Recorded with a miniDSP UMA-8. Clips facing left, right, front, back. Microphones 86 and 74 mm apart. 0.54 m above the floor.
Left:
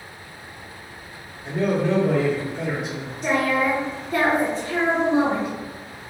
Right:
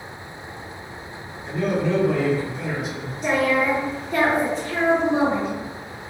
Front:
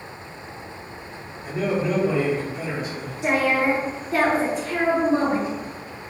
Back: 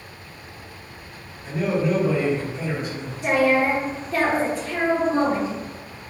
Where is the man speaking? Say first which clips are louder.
Left 1 dB, back 1 dB; 60° left, 1.2 m.